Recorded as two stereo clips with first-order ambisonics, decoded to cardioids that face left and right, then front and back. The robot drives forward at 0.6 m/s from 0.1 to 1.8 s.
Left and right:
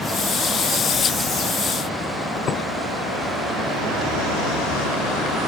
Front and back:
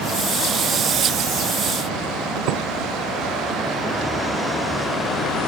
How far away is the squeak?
About 1.6 m.